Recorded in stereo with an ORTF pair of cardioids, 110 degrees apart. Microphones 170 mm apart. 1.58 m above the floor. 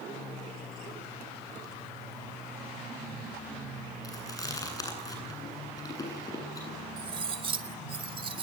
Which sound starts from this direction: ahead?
Chewing, at 4.0 s.